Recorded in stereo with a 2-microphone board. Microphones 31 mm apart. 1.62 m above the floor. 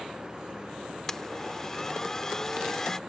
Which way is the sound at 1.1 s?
15° left (ahead or behind).